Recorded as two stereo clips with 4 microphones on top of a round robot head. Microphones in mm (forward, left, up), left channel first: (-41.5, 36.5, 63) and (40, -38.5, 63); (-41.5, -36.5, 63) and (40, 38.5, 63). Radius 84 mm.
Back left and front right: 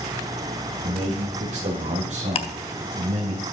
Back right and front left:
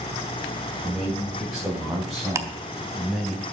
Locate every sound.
0.8 s a man speaking: 35° right, 3 m; by 3.4 s 55° right, 4 m
2.4 s ticking: 105° left, 0.8 m